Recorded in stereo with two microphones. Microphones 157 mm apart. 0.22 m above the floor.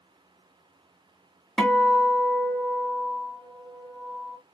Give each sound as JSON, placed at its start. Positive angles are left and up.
{"t": 1.6, "sound": "a guitar", "side_deg": 5, "distance_m": 1.1}